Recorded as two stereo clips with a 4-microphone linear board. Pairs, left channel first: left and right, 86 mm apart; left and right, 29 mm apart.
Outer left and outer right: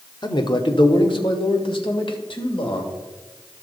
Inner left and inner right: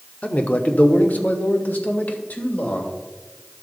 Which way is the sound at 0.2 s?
50° left (ahead or behind).